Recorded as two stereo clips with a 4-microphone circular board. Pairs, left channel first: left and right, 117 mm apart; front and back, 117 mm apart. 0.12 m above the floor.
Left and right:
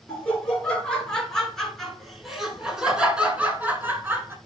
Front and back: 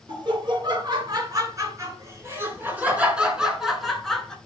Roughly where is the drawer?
No drawer in this recording.